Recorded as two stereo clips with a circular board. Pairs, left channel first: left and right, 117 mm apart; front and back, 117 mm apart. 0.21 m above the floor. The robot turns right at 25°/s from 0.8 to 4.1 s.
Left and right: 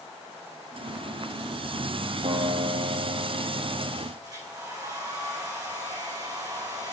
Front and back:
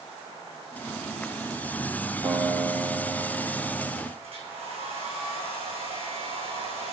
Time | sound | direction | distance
2.2 | a guitar | 110° right | 3 m
4.2 | a hair dryer | 145° right | 4 m